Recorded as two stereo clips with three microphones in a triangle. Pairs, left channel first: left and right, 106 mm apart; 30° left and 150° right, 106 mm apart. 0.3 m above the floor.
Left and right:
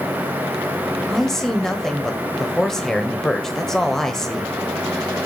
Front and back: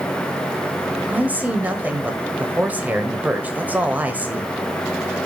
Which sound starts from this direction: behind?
A man speaking, at 1.1 s.